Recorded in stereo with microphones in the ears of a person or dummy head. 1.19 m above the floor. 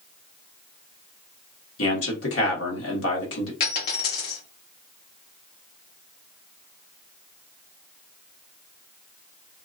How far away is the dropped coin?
About 1.2 m.